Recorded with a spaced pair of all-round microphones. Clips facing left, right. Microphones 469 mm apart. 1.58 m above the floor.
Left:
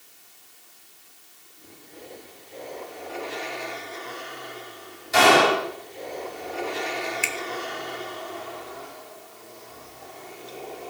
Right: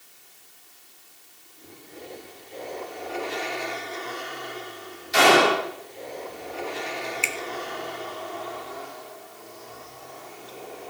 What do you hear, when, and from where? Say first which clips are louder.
5.1 s a gunshot: even; 75° left (ahead or behind), 7 m
7.2 s a finger snap: even; 35° left (ahead or behind), 1.0 m